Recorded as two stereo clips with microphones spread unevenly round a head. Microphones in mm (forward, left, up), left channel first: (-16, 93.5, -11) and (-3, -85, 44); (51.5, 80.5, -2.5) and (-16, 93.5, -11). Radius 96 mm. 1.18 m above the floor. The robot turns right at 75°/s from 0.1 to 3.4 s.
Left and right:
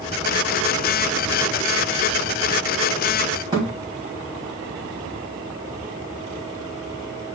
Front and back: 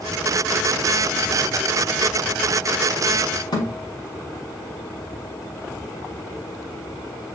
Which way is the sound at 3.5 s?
15° right.